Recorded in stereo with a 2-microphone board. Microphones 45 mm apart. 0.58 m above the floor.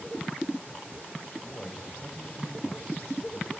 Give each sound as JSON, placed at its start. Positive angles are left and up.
{"t": 1.4, "sound": "a man speaking", "side_deg": 30, "distance_m": 4.0}